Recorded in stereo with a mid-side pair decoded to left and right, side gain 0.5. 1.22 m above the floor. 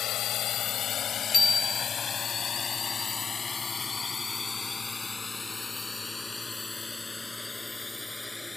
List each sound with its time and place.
0.0 s a drone: 65° left; by 8.6 s 15° left
1.3 s a bicycle bell: 30° left